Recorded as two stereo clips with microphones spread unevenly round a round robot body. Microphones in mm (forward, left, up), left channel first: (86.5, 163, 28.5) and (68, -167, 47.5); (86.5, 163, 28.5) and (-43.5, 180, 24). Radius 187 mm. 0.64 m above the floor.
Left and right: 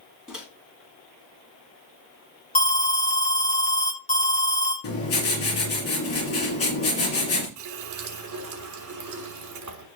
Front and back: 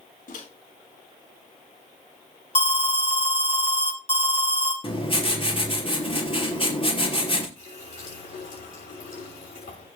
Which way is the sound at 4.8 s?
40° left.